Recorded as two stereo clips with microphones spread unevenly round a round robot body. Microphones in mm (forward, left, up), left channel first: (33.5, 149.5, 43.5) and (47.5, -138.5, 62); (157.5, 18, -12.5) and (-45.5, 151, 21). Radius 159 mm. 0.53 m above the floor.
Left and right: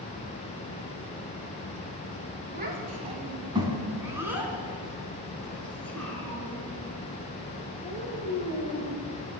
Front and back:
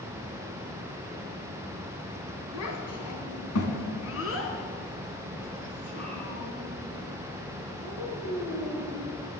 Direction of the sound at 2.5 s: 30° right.